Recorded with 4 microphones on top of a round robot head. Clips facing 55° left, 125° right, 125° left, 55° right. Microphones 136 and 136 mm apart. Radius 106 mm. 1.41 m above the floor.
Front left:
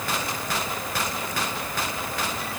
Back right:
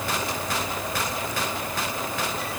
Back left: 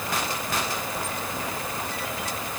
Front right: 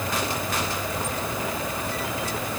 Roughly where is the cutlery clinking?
No cutlery clinking in this recording.